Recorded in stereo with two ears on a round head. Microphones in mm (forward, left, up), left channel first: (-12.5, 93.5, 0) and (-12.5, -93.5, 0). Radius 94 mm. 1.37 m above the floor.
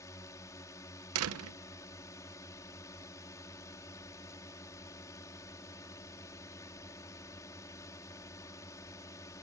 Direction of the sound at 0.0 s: 15° left (ahead or behind).